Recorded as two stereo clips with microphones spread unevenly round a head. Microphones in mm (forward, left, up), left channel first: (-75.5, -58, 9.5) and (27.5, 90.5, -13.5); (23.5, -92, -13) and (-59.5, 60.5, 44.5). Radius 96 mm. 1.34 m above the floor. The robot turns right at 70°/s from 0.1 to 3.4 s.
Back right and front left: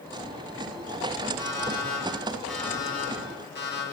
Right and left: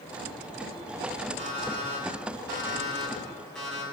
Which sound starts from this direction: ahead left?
An alarm clock, at 1.4 s.